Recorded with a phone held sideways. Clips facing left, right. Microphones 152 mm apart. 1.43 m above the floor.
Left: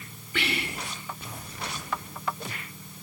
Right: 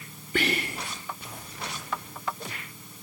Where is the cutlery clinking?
I don't hear cutlery clinking.